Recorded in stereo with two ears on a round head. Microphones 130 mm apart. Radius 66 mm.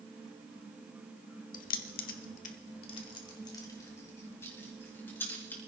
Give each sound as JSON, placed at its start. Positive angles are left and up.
{"t": 1.5, "sound": "keys jangling", "side_deg": 60, "distance_m": 1.0}